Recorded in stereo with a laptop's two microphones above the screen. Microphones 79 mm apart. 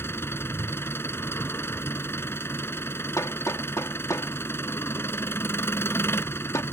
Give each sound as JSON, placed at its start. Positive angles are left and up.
{"t": 0.0, "sound": "an engine running", "side_deg": 30}
{"t": 3.2, "sound": "hammering", "side_deg": 40}